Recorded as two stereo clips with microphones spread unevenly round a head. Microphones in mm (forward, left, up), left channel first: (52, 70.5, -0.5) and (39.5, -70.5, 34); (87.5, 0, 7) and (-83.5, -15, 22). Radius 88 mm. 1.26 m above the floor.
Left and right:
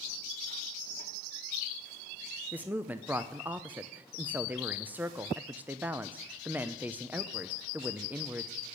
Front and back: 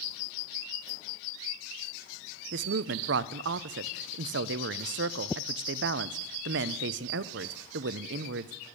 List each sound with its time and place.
2.5 s a woman speaking: straight behind, 0.6 m